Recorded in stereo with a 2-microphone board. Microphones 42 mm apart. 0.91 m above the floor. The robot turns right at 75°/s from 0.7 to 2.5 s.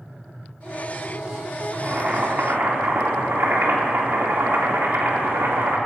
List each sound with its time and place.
1.7 s boiling: 160° right, 2.5 m; by 5.8 s 100° right, 2.5 m